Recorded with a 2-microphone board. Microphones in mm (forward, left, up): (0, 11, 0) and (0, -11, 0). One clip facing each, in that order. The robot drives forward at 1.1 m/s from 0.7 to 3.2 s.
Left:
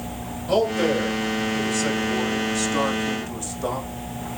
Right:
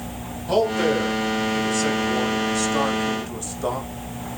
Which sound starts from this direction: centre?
A man speaking, at 0.5 s.